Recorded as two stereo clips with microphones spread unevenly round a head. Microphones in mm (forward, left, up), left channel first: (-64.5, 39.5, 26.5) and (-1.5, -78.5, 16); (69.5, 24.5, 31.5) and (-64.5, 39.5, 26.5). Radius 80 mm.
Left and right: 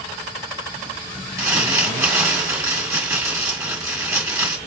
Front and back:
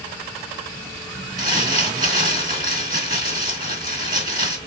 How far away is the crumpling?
About 1.7 m.